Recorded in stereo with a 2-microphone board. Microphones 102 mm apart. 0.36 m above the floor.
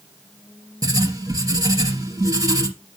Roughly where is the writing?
Right.